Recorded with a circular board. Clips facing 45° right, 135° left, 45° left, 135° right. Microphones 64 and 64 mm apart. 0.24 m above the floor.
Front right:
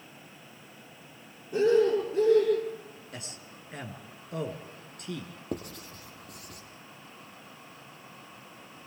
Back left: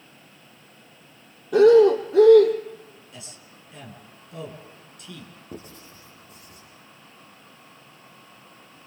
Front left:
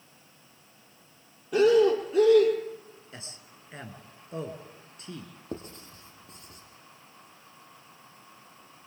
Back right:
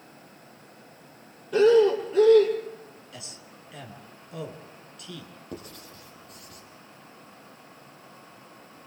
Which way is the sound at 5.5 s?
15° right.